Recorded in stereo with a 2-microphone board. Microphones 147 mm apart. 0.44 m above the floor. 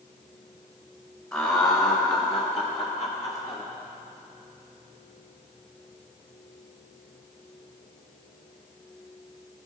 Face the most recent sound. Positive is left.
turn(degrees=45)  # may be behind; listen again after turning